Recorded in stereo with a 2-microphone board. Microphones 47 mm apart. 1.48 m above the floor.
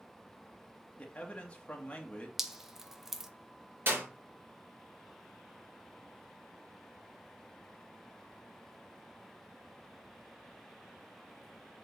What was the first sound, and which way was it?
A man speaking, 25° left (ahead or behind).